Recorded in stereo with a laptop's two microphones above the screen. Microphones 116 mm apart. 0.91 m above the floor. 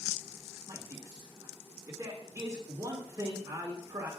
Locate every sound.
0.7 s a man speaking: 30° right (ahead or behind), 2 m